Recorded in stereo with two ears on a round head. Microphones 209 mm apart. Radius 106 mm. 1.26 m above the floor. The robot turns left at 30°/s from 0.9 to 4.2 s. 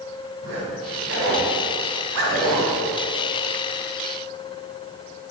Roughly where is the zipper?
Right.